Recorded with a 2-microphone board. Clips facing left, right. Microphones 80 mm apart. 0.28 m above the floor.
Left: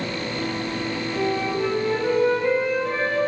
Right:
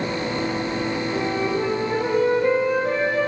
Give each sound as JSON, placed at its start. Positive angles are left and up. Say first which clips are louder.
{"t": 1.1, "sound": "a flute", "louder": "left 1 dB", "side_deg": -35, "distance_m": 7.0}